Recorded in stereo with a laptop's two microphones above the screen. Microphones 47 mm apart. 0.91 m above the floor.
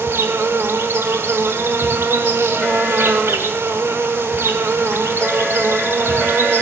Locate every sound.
0.0 s an insect: 65° right (ahead or behind), 0.9 m